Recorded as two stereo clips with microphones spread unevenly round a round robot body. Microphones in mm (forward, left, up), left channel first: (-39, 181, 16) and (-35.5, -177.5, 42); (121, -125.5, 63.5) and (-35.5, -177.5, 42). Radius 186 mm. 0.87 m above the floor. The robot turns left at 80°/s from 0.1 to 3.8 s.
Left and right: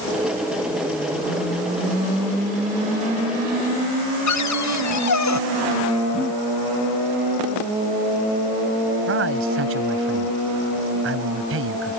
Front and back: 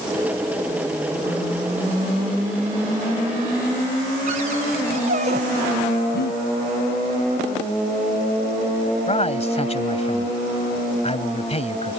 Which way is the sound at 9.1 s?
30° right.